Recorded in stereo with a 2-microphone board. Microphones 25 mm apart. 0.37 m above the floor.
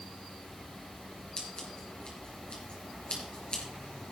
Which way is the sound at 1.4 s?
45° left (ahead or behind).